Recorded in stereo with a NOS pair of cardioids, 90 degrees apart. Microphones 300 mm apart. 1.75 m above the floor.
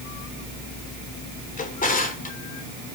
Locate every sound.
1.6 s a drawer: 30° left, 3 m